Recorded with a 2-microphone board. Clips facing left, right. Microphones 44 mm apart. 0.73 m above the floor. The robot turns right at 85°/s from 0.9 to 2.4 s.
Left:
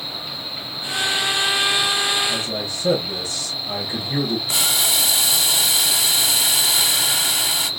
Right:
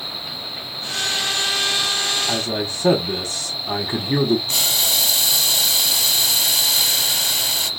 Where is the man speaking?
70° right (ahead or behind), 1.5 m; by 4.4 s 65° right (ahead or behind), 1.5 m.